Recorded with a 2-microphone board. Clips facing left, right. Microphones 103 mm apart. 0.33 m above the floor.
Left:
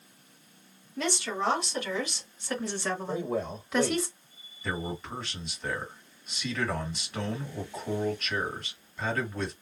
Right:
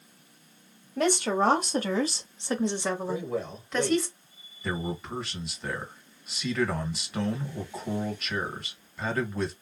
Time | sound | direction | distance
1.0 | a woman speaking | 55° right (ahead or behind) | 1.3 m
3.1 | a man speaking | 30° left (ahead or behind) | 1.2 m
4.6 | a man speaking | 5° right (ahead or behind) | 1.5 m